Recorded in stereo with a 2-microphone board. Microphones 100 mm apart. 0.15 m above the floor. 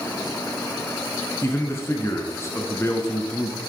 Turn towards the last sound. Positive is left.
turn(degrees=30)  # may be behind; listen again after turning